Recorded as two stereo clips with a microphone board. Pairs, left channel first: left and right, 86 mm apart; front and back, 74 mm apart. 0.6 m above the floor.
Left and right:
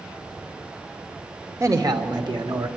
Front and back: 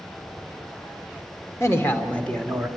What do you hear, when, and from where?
1.6 s a man speaking: 45° right, 1.8 m; by 2.7 s 90° right, 1.9 m